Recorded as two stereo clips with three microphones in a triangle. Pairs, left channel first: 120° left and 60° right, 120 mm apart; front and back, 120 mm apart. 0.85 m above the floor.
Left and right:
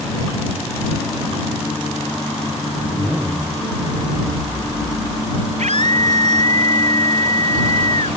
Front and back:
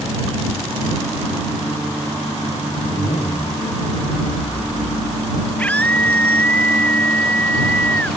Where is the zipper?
10° left.